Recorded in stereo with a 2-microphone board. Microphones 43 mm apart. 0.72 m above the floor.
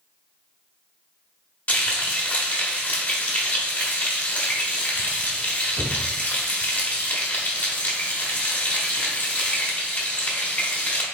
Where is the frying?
35° left (ahead or behind), 1.2 m.